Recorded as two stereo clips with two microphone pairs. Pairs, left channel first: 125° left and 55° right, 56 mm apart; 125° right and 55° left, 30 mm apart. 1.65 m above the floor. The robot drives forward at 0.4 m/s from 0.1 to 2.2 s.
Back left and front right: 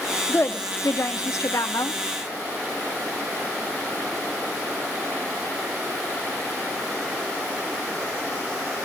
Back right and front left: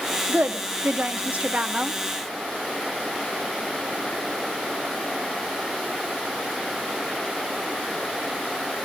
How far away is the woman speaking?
About 1.1 m.